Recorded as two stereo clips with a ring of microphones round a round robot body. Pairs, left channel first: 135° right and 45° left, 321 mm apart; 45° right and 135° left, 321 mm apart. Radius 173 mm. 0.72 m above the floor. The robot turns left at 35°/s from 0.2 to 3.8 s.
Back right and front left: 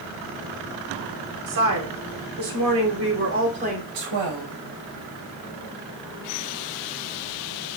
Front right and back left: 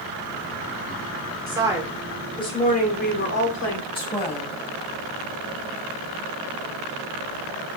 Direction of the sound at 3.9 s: 30° left.